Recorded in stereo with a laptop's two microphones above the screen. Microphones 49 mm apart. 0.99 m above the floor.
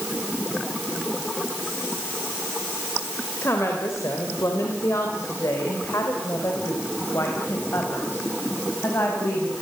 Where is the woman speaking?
60° left (ahead or behind), 3.5 m; by 9.6 s 55° left (ahead or behind), 6 m.